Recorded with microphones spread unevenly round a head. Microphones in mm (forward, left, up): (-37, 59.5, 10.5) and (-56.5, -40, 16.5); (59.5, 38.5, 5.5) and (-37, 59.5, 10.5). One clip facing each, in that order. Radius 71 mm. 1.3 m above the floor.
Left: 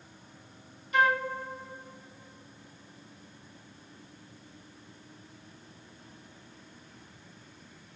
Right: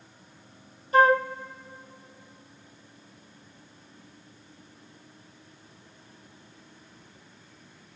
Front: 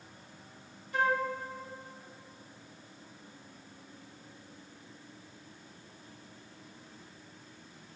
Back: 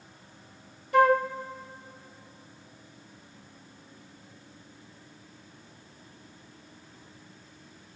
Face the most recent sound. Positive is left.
turn(degrees=-155)